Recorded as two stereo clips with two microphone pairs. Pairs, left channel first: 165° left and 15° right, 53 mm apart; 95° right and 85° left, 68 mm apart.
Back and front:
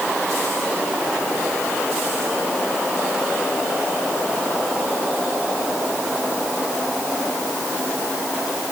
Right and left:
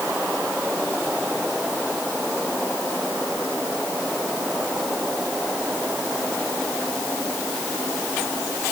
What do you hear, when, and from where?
Only background noise.